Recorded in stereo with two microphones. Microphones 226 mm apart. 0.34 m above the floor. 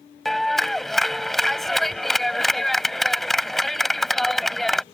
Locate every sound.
0.2 s a clap: centre (ahead or behind)